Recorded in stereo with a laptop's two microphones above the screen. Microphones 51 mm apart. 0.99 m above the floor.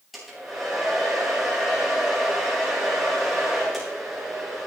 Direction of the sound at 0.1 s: 5° right (ahead or behind).